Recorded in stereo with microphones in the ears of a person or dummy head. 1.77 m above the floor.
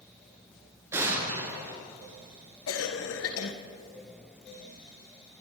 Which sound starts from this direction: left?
A cough, at 2.7 s.